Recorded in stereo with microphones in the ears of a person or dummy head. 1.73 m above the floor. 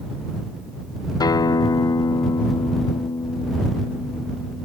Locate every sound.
1.2 s a guitar: 20° left (ahead or behind)